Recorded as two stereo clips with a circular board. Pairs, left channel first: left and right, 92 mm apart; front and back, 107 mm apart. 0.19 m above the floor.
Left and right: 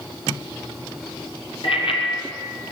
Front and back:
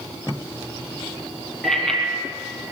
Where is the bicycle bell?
85° left, 4 m.